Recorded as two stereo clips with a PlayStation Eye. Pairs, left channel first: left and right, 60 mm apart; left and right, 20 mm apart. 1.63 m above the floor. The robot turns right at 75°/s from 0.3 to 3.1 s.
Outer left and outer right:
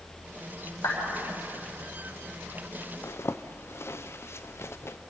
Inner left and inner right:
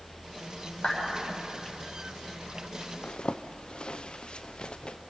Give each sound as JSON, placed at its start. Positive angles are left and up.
{"t": 0.8, "sound": "a clap", "side_deg": 55, "distance_m": 8.5}
{"t": 3.0, "sound": "a zipper", "side_deg": 50, "distance_m": 0.7}